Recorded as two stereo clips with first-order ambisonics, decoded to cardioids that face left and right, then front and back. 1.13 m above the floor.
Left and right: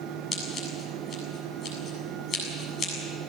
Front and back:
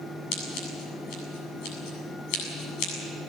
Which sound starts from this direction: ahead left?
Scissors, at 0.3 s.